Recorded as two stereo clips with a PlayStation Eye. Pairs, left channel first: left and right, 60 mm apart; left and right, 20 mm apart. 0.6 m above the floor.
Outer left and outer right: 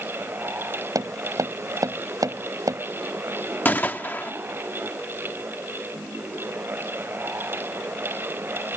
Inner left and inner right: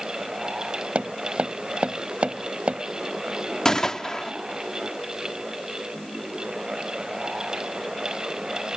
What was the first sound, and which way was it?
Tapping, 75° right (ahead or behind).